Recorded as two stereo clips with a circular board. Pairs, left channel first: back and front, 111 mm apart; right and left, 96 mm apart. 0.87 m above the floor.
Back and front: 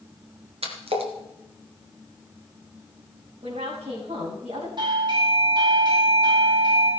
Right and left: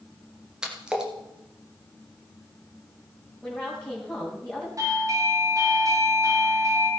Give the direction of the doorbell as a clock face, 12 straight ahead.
11 o'clock.